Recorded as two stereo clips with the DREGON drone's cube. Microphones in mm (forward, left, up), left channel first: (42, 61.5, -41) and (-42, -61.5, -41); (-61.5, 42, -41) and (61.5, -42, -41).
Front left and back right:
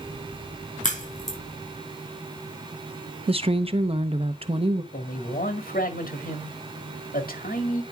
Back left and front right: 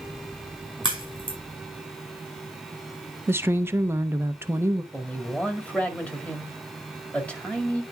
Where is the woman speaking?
100° right, 0.7 m.